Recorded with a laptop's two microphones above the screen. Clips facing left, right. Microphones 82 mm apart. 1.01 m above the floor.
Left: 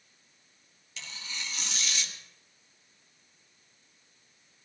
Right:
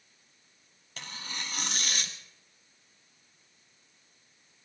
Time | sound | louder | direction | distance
1.0 | tearing paper | right 2 dB | 45° right (ahead or behind) | 1.3 m